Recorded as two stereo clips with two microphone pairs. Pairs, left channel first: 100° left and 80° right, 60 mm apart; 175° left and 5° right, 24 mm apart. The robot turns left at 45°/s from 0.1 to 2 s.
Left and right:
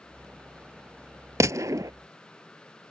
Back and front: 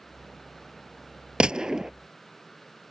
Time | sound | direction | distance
1.4 | a gunshot | 50° right | ?